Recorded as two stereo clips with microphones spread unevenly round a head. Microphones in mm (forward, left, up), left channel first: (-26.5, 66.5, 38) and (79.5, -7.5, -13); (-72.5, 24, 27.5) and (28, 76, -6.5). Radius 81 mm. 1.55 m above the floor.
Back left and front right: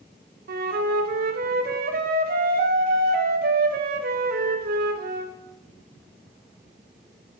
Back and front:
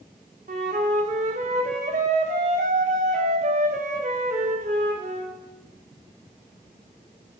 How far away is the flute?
About 0.8 m.